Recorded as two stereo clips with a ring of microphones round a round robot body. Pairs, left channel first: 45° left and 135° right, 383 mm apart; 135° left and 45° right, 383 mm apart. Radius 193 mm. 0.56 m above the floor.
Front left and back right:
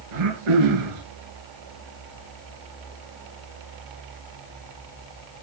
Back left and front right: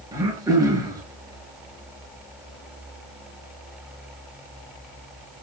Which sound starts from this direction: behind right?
Throat clearing, at 0.1 s.